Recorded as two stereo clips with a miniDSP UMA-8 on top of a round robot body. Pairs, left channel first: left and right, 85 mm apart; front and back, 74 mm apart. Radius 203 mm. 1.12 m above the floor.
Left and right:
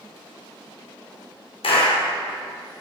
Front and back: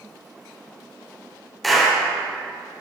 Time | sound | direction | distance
1.6 | a clap | 90° left | 3.5 m